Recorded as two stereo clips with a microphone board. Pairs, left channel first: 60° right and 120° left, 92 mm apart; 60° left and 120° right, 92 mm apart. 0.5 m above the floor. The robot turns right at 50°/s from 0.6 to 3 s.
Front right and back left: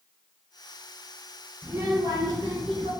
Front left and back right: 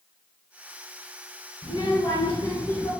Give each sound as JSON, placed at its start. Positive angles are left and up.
{"t": 1.6, "sound": "a child speaking", "azimuth_deg": 50, "distance_m": 1.1}